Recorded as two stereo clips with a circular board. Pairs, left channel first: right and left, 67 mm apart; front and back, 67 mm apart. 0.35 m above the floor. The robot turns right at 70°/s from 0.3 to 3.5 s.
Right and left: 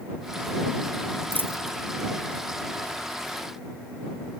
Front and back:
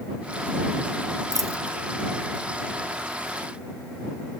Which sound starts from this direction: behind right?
A dropped coin, at 1.3 s.